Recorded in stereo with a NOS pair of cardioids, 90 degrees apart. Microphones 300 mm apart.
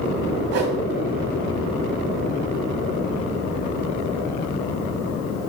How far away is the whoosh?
About 1.8 m.